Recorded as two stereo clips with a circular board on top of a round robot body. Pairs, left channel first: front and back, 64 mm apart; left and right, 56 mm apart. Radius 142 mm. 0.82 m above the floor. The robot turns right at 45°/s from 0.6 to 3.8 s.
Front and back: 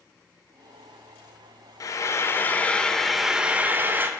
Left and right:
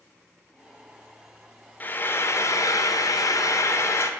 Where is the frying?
30° left, 0.6 m; by 4.1 s 120° left, 0.6 m.